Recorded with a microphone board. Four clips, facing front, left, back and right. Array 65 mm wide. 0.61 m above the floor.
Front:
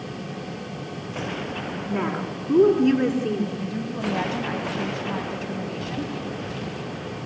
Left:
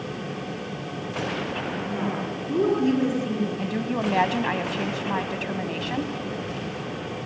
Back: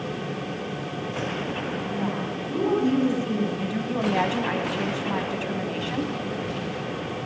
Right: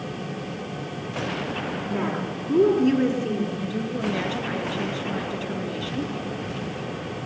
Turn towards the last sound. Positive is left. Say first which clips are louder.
# left 1 dB, back 2 dB
turn(degrees=105)